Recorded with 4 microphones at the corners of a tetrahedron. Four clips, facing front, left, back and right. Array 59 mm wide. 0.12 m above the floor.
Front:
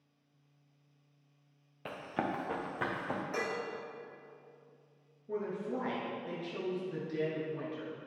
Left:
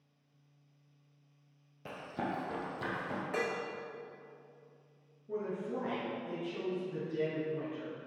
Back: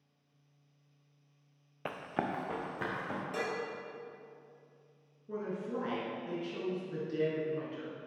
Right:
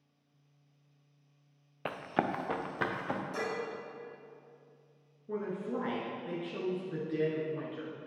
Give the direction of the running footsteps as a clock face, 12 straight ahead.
4 o'clock.